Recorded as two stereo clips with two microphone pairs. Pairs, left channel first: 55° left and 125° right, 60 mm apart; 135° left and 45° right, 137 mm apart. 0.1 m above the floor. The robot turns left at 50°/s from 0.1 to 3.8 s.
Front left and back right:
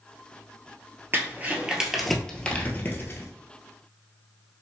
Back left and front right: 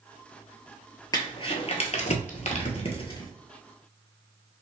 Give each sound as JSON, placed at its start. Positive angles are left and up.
{"t": 1.1, "sound": "crumpling", "azimuth_deg": -165, "distance_m": 1.0}